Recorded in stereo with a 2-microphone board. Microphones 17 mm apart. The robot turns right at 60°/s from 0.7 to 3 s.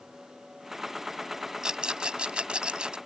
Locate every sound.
1.6 s a rattle: 40° right (ahead or behind); by 3.0 s 60° right (ahead or behind)